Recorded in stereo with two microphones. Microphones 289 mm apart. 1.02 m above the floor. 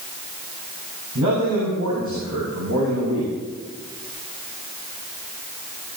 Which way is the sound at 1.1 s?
85° right.